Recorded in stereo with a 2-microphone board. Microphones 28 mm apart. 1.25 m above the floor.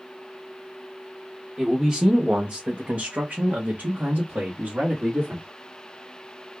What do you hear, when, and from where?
1.6 s a man speaking: 10° right (ahead or behind), 0.9 m; by 5.5 s 75° right (ahead or behind), 1.8 m